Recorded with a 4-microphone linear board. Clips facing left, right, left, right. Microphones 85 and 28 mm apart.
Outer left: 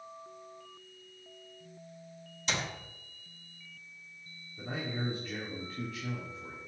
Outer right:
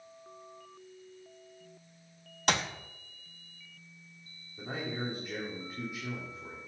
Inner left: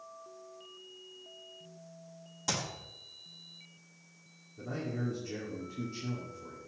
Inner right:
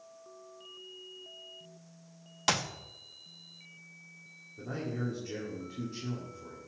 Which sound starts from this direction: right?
A clap, at 2.5 s.